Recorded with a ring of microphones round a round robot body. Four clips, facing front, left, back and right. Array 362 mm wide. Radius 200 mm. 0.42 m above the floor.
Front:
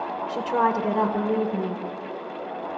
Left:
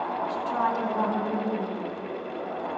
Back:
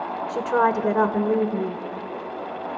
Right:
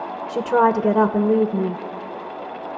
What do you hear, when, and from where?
0.3 s a woman speaking: 105° right, 1.5 m